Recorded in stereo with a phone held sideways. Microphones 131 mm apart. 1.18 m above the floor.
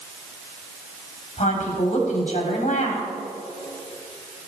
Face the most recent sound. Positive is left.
turn(degrees=60)  # may be behind; listen again after turning